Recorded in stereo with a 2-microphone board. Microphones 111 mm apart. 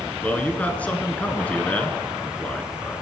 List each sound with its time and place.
0.2 s a man speaking: 15° left (ahead or behind), 1.2 m